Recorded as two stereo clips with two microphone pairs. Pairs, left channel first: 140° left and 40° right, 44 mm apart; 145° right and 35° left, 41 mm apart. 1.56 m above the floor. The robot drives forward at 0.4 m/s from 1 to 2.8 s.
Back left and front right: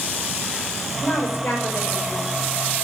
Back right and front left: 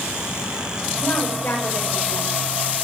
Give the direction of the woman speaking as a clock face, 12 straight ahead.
6 o'clock.